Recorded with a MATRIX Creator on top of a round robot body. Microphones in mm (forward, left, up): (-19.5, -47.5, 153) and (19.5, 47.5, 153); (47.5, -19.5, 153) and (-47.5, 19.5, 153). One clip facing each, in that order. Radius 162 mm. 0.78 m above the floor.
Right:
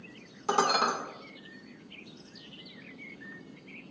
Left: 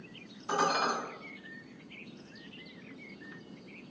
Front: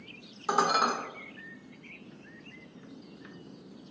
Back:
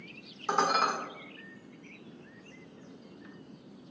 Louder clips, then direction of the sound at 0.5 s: Right 3 dB, front 1 dB; 105° right.